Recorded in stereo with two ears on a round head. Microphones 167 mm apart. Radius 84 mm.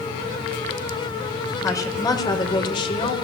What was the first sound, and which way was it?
A woman speaking, 20° left (ahead or behind).